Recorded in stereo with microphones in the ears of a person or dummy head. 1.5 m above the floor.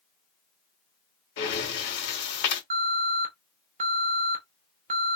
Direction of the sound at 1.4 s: 70° left (ahead or behind).